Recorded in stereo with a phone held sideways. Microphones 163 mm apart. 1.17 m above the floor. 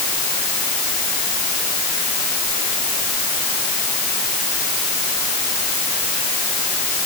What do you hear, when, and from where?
Only background noise.